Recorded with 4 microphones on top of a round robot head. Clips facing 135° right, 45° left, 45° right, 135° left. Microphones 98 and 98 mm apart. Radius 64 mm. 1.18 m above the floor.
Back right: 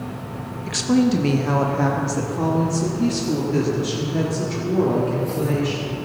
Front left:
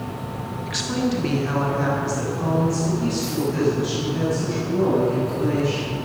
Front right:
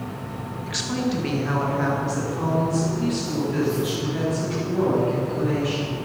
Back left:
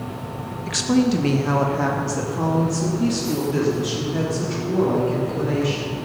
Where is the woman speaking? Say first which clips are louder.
Back right 6 dB, back left 7 dB; 175° left, 1.0 m; by 5.9 s 165° right, 4 m.